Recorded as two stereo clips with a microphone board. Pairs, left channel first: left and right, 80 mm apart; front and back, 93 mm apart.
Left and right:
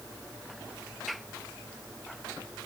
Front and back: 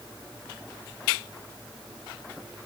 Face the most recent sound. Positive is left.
No sound to turn to.